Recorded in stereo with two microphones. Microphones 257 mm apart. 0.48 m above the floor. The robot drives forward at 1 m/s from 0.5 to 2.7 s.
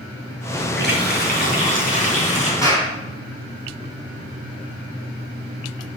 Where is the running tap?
45° left (ahead or behind), 2.5 m; by 2.5 s 30° left (ahead or behind), 4 m.